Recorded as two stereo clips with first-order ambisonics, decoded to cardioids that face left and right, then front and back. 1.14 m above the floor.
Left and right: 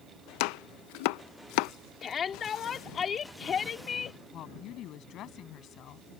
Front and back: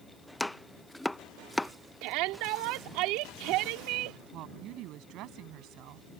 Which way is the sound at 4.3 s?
140° left.